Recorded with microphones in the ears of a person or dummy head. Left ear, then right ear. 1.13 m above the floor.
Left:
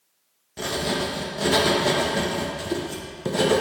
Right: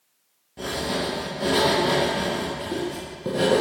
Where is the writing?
50° left (ahead or behind), 1.0 m.